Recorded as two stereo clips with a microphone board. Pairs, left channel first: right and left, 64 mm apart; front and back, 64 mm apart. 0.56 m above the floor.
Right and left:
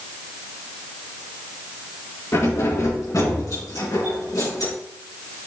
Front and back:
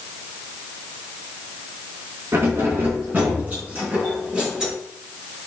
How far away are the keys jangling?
About 3.5 m.